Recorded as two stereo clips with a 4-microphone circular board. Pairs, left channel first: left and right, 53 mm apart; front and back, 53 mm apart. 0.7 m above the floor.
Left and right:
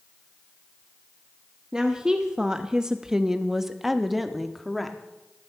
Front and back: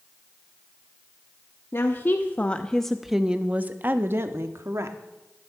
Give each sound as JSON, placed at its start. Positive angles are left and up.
{"t": 1.7, "sound": "a woman speaking", "azimuth_deg": -15, "distance_m": 1.0}